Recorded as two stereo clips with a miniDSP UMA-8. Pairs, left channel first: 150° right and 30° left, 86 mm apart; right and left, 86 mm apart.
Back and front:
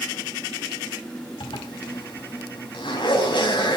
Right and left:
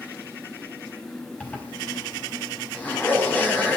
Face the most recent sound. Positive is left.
turn(degrees=-160)